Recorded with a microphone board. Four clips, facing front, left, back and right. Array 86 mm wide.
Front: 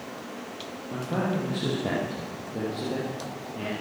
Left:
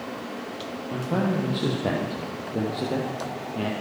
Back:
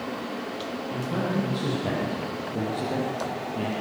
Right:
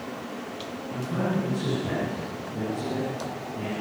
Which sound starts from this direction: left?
A man speaking, at 0.9 s.